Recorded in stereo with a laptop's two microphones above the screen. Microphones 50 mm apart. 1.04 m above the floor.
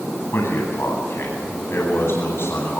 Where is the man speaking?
55° left (ahead or behind), 10 m.